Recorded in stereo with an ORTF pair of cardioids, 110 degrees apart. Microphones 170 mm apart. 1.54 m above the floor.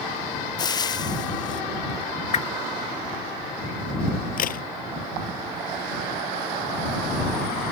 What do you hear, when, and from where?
0.6 s frying: 25° left
2.3 s a whoosh: 45° left
4.4 s a crack: 55° left